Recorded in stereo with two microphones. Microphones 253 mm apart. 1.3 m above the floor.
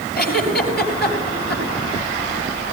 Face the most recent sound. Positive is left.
turn(degrees=40)  # may be behind; listen again after turning